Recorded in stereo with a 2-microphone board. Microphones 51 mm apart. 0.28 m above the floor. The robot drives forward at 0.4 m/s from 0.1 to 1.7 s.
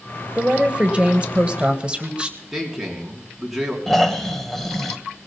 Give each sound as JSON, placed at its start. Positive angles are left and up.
{"t": 0.3, "sound": "a woman speaking", "side_deg": -20, "distance_m": 1.1}
{"t": 2.5, "sound": "a man speaking", "side_deg": -5, "distance_m": 3.0}
{"t": 3.9, "sound": "snoring", "side_deg": 5, "distance_m": 1.2}